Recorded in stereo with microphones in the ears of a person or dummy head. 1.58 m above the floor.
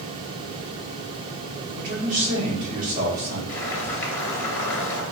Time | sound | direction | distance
1.7 | a man speaking | 45° right (ahead or behind) | 1.6 m
3.5 | boiling | 15° left (ahead or behind) | 1.5 m